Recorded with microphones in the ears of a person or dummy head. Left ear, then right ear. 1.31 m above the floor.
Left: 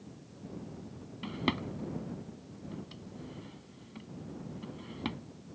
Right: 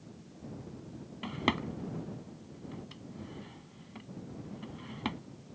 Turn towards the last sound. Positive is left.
turn(degrees=-20)  # may be behind; listen again after turning